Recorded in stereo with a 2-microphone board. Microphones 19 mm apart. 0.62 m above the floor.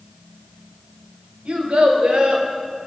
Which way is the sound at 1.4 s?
70° right (ahead or behind).